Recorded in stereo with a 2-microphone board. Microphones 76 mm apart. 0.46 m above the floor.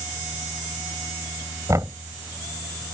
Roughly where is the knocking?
Right.